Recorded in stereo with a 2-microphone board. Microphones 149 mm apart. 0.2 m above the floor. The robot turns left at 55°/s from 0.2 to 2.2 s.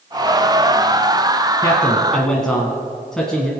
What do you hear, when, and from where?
1.6 s a man speaking: 35° left, 1.7 m; by 3.5 s 5° left, 1.7 m